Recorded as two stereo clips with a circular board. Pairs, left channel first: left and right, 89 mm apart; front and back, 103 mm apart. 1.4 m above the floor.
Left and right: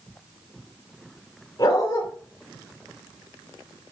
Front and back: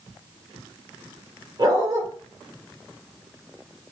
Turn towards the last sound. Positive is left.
turn(degrees=135)